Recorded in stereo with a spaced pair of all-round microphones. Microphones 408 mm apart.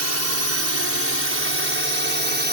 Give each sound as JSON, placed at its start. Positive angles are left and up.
{"t": 0.0, "sound": "a drone", "side_deg": -40}